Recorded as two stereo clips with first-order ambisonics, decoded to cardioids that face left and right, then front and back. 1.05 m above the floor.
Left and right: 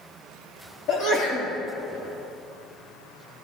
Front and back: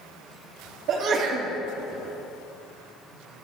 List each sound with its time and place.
0.9 s a sneeze: 140° left, 2 m